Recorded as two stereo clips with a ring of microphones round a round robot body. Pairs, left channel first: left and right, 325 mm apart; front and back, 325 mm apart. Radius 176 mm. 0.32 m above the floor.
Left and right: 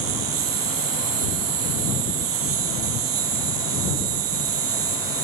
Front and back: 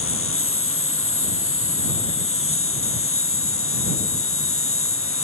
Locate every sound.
0.0 s an insect: 50° right